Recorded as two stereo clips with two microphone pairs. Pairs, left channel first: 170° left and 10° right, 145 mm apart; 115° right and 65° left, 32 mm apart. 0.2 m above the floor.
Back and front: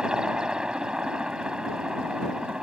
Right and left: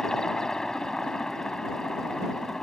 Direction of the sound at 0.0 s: 80° right.